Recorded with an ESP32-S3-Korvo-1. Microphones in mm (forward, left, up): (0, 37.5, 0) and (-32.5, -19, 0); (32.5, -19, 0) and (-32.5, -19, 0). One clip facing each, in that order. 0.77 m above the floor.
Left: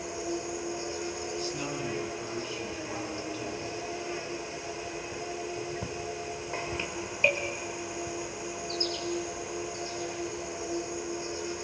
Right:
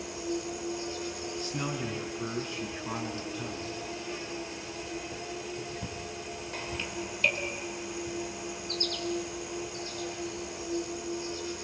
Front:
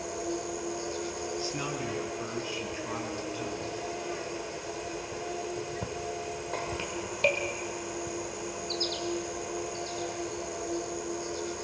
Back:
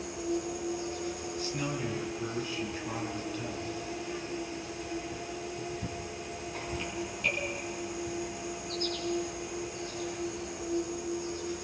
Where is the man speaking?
65° right, 7.5 m.